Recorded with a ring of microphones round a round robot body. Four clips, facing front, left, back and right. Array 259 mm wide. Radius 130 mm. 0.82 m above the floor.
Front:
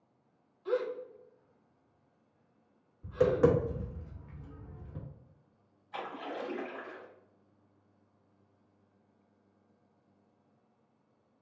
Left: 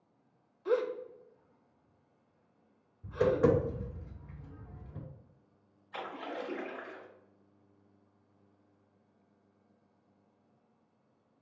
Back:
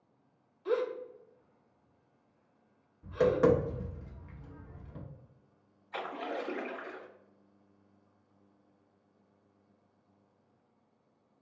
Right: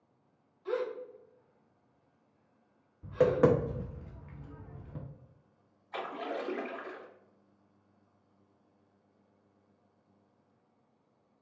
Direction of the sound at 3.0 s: 100° right.